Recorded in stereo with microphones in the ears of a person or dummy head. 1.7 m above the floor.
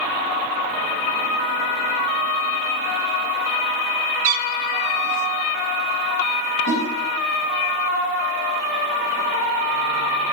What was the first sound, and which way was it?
A cat meowing, 55° right (ahead or behind).